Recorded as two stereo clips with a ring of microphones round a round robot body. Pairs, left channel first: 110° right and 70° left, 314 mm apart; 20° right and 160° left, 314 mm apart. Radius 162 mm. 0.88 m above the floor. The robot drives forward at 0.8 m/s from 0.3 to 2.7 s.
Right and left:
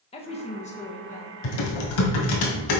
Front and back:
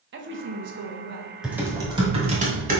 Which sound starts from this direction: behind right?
Typing on a keyboard, at 1.4 s.